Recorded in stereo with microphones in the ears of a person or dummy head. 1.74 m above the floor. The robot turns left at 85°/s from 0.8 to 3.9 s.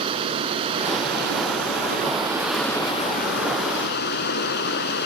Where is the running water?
30° right; by 5.1 s 65° left.